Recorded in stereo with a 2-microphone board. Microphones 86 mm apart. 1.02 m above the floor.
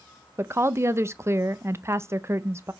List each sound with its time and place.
0.4 s a woman speaking: 30° right (ahead or behind), 0.6 m